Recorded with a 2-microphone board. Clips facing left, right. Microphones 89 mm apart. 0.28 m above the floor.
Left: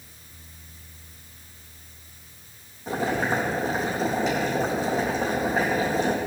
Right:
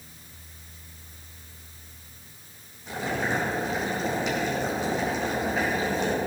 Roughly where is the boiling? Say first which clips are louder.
Left 3 dB; left.